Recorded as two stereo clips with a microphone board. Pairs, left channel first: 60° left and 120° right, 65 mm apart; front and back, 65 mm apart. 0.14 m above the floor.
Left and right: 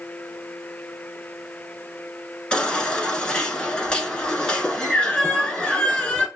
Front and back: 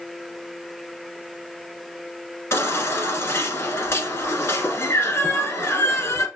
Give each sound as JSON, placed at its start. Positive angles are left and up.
{"t": 2.5, "sound": "a baby crying", "azimuth_deg": -10, "distance_m": 0.8}